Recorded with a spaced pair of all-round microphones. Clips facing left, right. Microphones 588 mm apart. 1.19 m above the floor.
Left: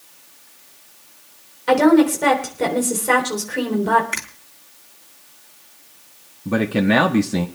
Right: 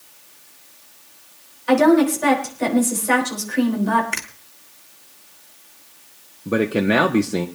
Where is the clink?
I don't hear a clink.